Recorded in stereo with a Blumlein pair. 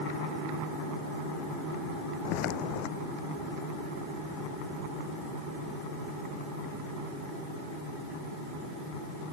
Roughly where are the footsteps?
Ahead left.